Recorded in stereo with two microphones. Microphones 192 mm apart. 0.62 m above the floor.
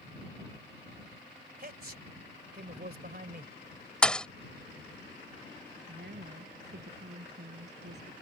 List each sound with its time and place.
1.6 s a man speaking: 55° right (ahead or behind)
4.0 s a thud: 5° left (ahead or behind)
5.9 s a woman speaking: 60° right (ahead or behind)